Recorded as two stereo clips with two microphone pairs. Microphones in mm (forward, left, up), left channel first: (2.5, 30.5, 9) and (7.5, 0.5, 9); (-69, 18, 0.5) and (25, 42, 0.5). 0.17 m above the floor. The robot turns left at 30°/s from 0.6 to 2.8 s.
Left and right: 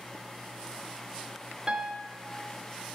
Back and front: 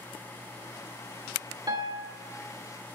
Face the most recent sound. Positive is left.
turn(degrees=-55)